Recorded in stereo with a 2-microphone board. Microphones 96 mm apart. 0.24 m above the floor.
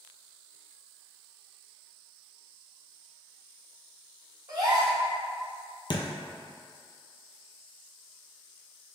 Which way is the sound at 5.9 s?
55° left (ahead or behind).